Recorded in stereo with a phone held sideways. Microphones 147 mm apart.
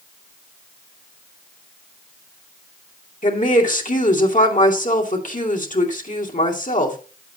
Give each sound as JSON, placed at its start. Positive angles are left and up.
{"t": 3.2, "sound": "a woman speaking", "side_deg": 60, "distance_m": 2.5}